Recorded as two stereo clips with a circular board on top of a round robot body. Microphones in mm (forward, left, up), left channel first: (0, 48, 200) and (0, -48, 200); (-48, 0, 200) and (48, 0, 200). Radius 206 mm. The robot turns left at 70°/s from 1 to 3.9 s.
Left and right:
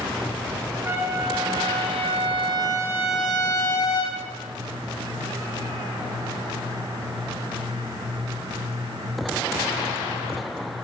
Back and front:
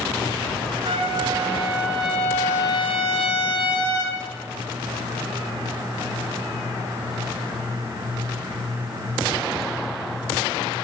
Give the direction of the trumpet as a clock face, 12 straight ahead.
1 o'clock.